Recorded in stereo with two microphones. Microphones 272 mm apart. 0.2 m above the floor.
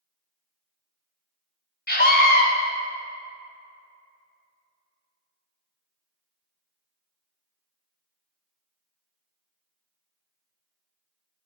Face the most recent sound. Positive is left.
turn(degrees=40)  # may be behind; listen again after turning